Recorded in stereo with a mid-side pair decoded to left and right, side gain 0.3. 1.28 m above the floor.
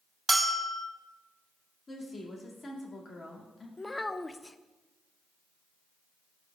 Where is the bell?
20° right, 1.2 m.